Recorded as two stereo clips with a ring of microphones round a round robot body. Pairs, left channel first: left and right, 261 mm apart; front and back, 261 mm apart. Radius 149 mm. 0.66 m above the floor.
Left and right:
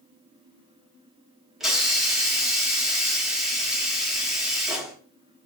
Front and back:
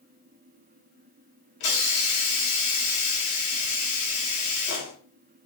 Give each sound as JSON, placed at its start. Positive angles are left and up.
{"t": 1.6, "sound": "a hiss", "azimuth_deg": 0, "distance_m": 5.0}